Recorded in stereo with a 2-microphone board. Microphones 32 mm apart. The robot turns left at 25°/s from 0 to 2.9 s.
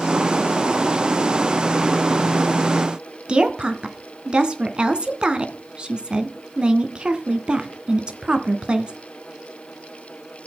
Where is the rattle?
No rattle in this recording.